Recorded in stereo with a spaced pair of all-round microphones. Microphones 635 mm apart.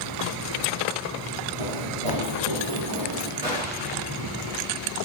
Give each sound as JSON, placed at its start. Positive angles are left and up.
{"t": 1.6, "sound": "running footsteps", "side_deg": -50, "distance_m": 2.5}
{"t": 3.4, "sound": "a gunshot", "side_deg": -5, "distance_m": 4.0}